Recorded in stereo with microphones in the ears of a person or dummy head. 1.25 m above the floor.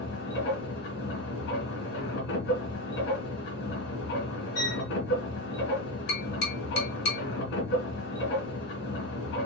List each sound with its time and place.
0.0 s a machine running: 65° left (ahead or behind), 3 m
4.5 s a violin: 50° left (ahead or behind), 3.5 m
6.1 s tapping: 55° left (ahead or behind), 2.5 m